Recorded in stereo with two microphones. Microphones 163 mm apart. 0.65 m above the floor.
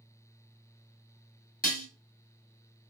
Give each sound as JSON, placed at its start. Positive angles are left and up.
{"t": 1.6, "sound": "dishes clattering", "side_deg": 65, "distance_m": 0.7}